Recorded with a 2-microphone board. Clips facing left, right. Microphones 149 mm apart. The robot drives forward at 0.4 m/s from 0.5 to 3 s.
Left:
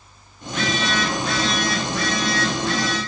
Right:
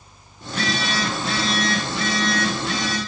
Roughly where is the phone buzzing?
Right.